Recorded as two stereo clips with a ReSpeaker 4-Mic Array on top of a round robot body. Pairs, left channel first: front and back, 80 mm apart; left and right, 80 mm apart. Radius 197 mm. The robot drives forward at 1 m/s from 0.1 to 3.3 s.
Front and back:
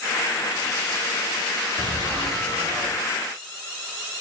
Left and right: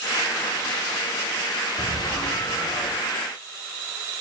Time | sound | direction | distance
1.8 | an explosion | 150° left | 5 m